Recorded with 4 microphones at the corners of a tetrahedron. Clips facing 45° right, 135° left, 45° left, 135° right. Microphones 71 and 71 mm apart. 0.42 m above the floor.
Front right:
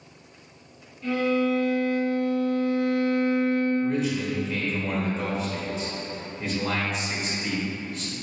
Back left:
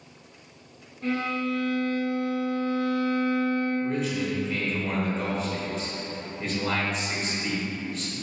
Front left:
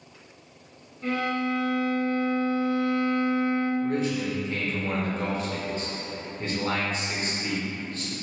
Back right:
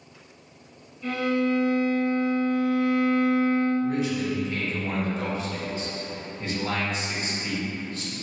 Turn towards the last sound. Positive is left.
turn(degrees=40)